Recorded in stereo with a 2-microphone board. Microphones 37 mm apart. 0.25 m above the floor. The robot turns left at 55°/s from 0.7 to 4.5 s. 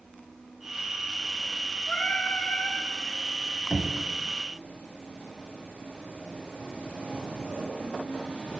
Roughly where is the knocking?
Right.